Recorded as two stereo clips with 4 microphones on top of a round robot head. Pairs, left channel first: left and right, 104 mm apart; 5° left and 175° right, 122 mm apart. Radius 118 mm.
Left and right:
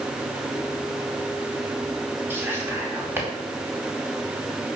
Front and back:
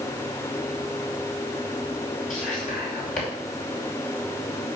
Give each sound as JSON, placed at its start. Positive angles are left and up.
{"t": 2.3, "sound": "whispering", "azimuth_deg": -20, "distance_m": 4.5}